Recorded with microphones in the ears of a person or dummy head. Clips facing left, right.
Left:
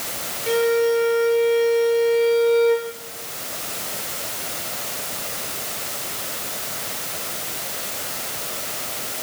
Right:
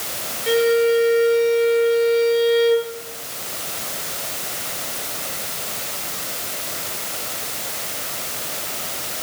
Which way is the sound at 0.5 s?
10° right (ahead or behind).